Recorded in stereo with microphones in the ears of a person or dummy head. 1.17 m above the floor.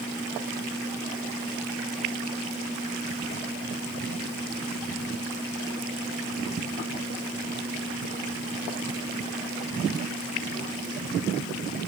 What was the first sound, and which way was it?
Only background noise.